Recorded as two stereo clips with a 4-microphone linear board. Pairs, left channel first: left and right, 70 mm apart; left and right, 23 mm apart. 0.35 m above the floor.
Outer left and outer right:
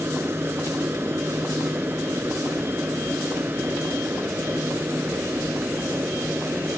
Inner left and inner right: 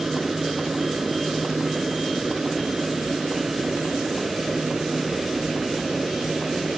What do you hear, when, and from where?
0.0 s an aircraft: 35° right (ahead or behind); by 6.8 s 25° right (ahead or behind)